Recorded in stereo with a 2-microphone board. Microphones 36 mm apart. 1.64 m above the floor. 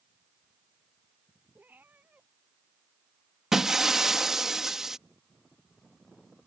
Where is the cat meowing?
55° right (ahead or behind).